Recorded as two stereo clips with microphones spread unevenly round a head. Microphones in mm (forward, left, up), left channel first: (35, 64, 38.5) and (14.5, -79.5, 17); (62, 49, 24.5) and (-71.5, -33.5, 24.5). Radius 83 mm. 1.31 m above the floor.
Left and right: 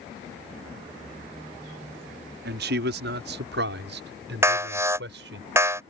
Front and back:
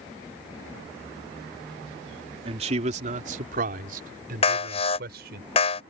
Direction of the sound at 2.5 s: 90° right.